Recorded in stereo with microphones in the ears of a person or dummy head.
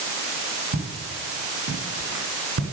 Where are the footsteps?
45° right (ahead or behind), 6 m; by 2.6 s 50° right (ahead or behind), 5 m.